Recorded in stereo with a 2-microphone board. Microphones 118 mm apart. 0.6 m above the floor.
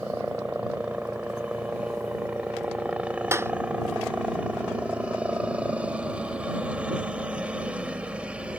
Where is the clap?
20° right (ahead or behind).